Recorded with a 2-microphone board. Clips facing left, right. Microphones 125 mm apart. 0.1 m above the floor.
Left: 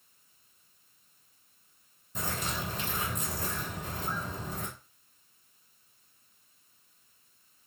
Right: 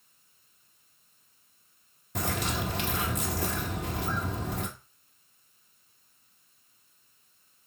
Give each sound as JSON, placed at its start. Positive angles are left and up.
{"t": 2.1, "sound": "a bird", "side_deg": -70, "distance_m": 1.2}